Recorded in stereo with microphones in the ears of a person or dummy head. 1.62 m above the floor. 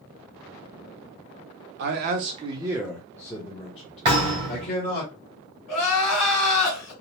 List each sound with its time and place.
1.8 s a man speaking: 60° right (ahead or behind), 0.6 m; by 5.0 s 45° left (ahead or behind), 1.4 m
4.0 s a thud: 20° right (ahead or behind), 1.4 m
5.7 s crying: 55° left (ahead or behind), 2 m